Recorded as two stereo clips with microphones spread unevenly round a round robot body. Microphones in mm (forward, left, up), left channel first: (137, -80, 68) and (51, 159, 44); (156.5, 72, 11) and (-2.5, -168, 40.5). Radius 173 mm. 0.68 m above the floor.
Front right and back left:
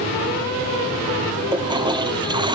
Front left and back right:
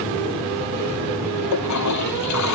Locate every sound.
1.5 s a toilet flushing: 35° left